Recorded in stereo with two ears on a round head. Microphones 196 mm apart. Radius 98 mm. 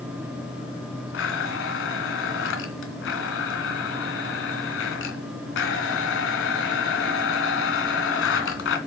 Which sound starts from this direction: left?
A blender, at 1.1 s.